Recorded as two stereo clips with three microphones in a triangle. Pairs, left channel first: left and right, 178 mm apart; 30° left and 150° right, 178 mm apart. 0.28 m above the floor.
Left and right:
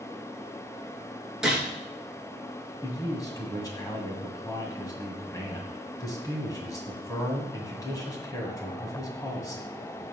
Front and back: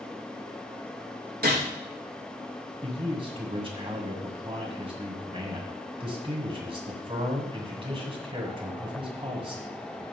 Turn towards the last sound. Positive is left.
turn(degrees=155)